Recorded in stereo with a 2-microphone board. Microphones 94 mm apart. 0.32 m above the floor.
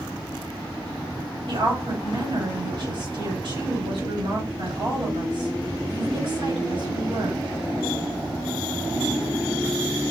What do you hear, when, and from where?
1.5 s a woman speaking: 65° right (ahead or behind), 4 m